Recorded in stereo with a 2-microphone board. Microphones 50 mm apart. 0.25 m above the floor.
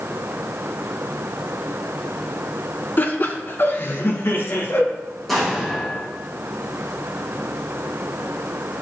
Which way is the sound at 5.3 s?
5° left (ahead or behind).